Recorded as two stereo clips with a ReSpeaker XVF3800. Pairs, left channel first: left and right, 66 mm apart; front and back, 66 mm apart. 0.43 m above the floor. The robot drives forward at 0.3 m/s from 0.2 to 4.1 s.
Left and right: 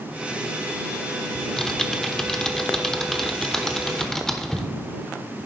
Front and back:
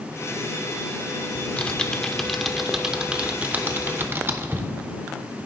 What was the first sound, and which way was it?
Typing on a keyboard, 20° left.